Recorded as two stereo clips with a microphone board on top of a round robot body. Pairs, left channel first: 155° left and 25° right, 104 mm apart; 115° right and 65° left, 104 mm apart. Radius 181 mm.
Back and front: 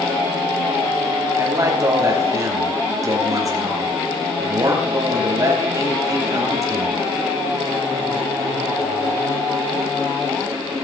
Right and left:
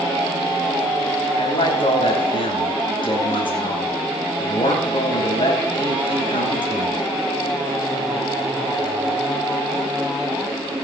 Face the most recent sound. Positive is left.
turn(degrees=-80)